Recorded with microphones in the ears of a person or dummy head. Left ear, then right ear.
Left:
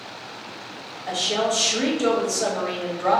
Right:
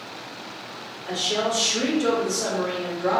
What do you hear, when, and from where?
1.1 s a woman speaking: 65° left (ahead or behind), 1.5 m